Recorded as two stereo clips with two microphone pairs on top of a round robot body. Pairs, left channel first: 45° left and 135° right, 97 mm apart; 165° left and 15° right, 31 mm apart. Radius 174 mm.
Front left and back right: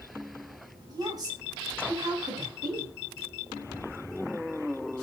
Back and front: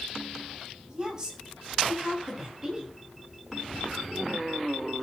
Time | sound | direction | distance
0.9 | a woman speaking | 85° right | 7.5 m